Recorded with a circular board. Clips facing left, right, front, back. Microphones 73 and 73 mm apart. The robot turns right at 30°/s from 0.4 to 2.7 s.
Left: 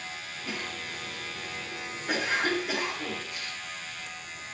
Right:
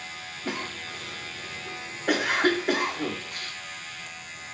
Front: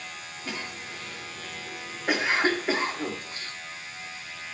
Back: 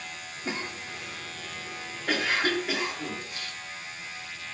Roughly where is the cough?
Behind right.